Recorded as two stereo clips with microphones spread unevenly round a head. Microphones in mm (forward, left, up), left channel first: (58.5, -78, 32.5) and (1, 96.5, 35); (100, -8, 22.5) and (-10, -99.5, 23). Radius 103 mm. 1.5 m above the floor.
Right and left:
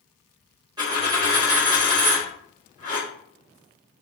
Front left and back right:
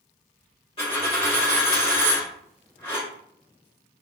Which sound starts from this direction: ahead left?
A dropped coin, at 0.8 s.